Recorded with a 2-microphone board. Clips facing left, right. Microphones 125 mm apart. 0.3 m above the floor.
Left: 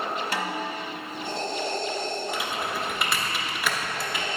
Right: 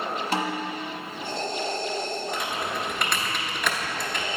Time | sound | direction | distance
0.3 | a snare drum | 25° right (ahead or behind) | 1.1 m
2.3 | typing on a keyboard | 5° left (ahead or behind) | 0.9 m